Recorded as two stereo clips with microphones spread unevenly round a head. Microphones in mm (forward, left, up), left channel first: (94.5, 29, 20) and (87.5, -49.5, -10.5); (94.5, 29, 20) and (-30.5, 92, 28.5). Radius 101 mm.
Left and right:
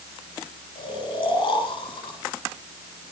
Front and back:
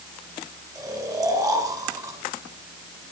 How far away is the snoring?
About 8 m.